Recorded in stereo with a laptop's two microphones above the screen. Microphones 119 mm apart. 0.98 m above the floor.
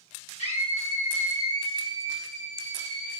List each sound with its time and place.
0.4 s a scream: 65° left (ahead or behind), 1.0 m; by 3.2 s 75° left (ahead or behind), 2.5 m